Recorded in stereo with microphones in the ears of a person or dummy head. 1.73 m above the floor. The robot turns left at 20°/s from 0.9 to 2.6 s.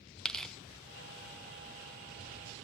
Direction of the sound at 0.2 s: Centre (ahead or behind).